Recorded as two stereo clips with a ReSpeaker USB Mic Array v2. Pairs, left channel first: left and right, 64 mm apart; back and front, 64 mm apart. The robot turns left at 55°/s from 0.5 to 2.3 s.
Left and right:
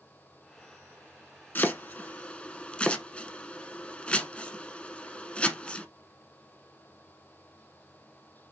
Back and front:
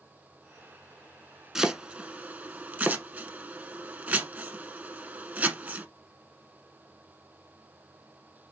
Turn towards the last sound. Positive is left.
turn(degrees=35)